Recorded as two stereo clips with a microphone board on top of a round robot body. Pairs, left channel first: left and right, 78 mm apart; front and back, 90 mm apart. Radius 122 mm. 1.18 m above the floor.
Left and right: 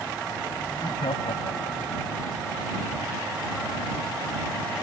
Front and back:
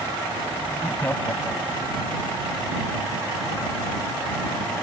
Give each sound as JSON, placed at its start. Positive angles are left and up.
{"t": 0.7, "sound": "laughter", "azimuth_deg": 70}